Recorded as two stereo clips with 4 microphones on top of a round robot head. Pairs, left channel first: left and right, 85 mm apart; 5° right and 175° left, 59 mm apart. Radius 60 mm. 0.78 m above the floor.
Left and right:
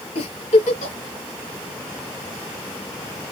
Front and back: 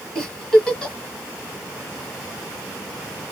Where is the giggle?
70° left, 1.4 m.